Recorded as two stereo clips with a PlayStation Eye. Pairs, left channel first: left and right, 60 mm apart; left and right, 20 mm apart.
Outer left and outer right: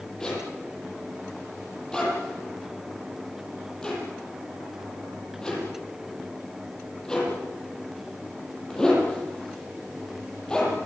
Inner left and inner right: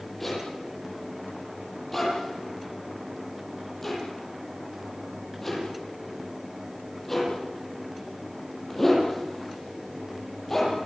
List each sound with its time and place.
0.2 s a zipper: 15° left (ahead or behind), 10 m